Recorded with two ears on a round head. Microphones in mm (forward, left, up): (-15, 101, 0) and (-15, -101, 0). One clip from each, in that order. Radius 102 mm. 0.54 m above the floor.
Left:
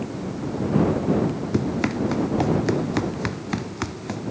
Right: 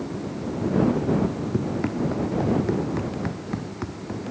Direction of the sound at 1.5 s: 80° left.